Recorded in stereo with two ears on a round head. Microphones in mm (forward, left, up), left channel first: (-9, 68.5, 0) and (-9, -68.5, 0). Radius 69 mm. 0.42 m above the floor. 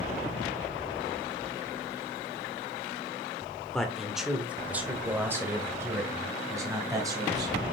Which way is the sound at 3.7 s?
5° left (ahead or behind).